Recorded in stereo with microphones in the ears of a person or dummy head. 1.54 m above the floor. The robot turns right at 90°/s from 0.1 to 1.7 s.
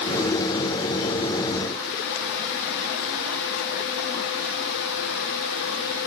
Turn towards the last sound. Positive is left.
No sound to turn to.